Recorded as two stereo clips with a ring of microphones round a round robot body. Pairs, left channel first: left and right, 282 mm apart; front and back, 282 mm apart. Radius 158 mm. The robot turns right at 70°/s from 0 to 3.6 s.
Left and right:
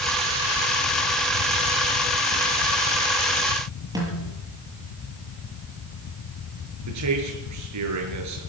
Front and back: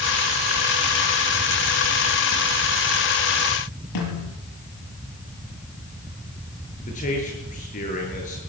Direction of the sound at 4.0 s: 15° right.